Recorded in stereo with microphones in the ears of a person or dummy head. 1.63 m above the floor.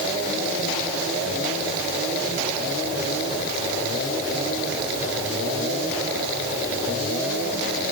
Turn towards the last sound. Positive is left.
No sound to turn to.